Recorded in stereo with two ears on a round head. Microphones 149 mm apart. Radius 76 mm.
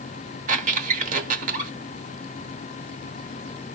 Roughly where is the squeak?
Right.